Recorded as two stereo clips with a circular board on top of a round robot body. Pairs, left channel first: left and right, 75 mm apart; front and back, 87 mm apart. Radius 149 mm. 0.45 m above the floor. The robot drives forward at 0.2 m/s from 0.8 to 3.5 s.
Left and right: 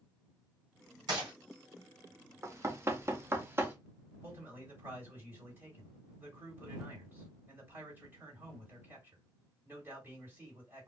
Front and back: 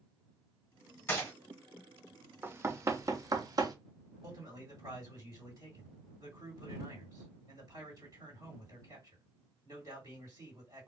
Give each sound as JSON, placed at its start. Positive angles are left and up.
{"t": 1.1, "sound": "a gunshot", "azimuth_deg": -65, "distance_m": 1.4}
{"t": 2.4, "sound": "knocking", "azimuth_deg": -125, "distance_m": 0.6}
{"t": 4.2, "sound": "a man speaking", "azimuth_deg": -145, "distance_m": 2.0}